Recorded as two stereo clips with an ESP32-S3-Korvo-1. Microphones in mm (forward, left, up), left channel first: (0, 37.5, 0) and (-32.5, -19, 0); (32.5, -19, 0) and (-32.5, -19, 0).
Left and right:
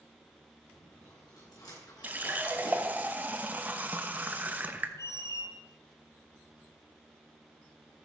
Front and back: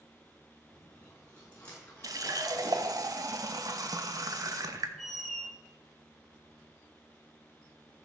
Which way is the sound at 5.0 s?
90° left.